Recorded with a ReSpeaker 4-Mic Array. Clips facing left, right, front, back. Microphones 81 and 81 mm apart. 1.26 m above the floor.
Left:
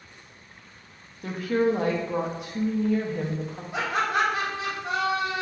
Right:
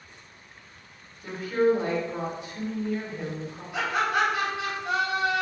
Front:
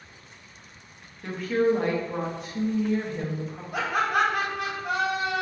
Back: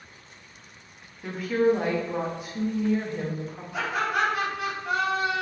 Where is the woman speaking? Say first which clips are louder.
Right 1 dB, back 1 dB; 95° left, 0.6 m.